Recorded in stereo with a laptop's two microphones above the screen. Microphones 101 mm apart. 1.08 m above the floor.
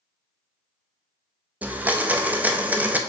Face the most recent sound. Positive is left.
turn(degrees=-15)  # may be behind; listen again after turning